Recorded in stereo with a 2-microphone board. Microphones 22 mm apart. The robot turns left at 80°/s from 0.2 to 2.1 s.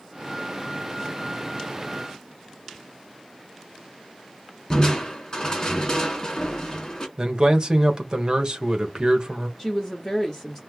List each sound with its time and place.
4.7 s crushing: 35° left (ahead or behind), 1.5 m
7.2 s a man speaking: 35° right (ahead or behind), 1.1 m
9.6 s a woman speaking: 5° left (ahead or behind), 1.1 m